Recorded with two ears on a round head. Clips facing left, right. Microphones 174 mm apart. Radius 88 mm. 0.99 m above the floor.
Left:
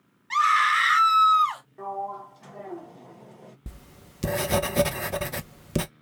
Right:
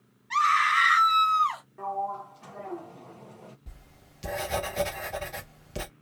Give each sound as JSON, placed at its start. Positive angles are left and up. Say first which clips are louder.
{"t": 0.3, "sound": "a scream", "louder": "left 2 dB", "side_deg": 65, "distance_m": 1.7}
{"t": 1.8, "sound": "a sliding door", "louder": "right 1 dB", "side_deg": 5, "distance_m": 0.6}
{"t": 3.7, "sound": "writing", "louder": "left 7 dB", "side_deg": 60, "distance_m": 0.6}